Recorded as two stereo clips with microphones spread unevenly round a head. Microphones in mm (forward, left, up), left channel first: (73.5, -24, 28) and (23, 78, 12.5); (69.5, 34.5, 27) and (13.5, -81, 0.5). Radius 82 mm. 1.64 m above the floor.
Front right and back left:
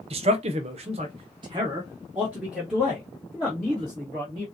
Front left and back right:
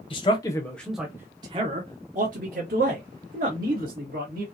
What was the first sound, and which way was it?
A man speaking, 95° left.